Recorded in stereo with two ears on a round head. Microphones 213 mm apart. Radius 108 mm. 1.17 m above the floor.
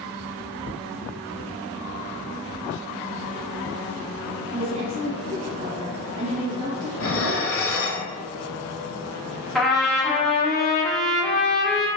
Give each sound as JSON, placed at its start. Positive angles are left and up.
{"t": 4.5, "sound": "a woman speaking", "side_deg": -30, "distance_m": 0.5}
{"t": 7.0, "sound": "dishes clattering", "side_deg": 60, "distance_m": 0.7}
{"t": 9.6, "sound": "a trumpet", "side_deg": 0, "distance_m": 1.0}